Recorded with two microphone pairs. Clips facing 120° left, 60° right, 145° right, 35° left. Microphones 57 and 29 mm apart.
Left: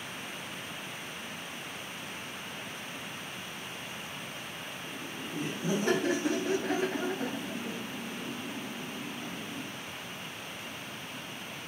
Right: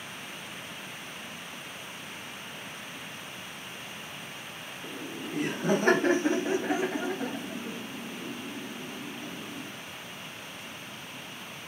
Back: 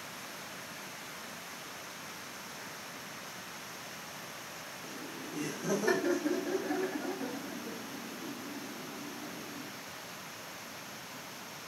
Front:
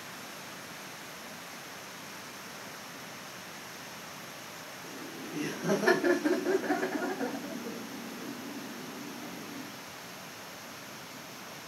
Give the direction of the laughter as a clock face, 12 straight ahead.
2 o'clock.